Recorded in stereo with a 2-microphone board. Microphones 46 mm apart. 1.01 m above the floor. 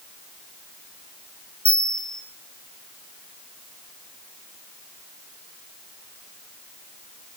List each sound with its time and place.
1.6 s a bell: 25° left (ahead or behind), 2 m